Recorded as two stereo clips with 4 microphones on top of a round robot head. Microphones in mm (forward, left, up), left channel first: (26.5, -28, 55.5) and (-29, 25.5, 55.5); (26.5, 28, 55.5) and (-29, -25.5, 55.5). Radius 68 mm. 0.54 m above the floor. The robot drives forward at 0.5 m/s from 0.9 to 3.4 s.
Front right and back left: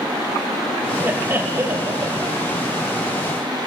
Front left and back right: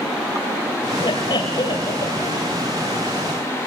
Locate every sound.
1.0 s laughter: 70° left, 3 m; by 2.5 s 85° left, 3 m